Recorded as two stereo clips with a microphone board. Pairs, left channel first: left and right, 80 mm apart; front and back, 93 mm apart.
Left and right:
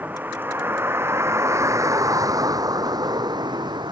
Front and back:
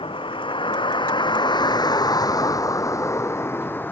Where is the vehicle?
20° right; by 3.9 s 70° right.